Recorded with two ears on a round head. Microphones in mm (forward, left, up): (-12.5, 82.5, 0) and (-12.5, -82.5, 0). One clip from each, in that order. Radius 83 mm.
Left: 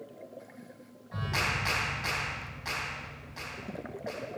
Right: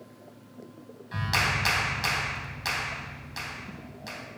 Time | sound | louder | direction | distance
1.1 | a clap | right 5 dB | 65° right (ahead or behind) | 4.5 m